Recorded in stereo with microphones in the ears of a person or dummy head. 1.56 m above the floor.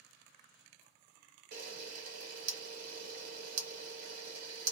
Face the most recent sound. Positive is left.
turn(degrees=-55)  # may be behind; listen again after turning